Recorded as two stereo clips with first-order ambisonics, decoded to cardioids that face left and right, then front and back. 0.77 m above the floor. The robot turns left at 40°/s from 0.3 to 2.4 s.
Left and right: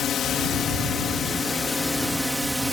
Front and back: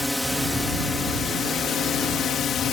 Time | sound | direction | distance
0.0 | a drone | 80° left | ?